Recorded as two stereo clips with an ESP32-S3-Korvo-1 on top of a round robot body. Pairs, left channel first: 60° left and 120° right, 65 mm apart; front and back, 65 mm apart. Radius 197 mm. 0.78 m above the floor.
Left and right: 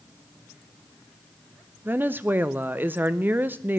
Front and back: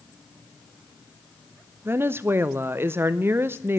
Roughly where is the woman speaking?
Behind.